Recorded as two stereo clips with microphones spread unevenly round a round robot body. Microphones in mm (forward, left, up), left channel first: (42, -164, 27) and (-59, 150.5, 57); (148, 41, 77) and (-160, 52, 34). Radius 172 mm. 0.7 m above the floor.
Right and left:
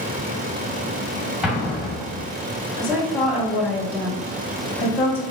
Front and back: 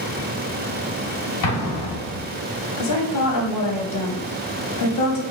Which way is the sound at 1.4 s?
15° left.